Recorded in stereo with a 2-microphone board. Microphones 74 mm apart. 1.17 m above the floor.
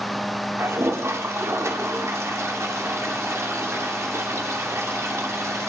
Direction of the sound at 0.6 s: 40° right (ahead or behind).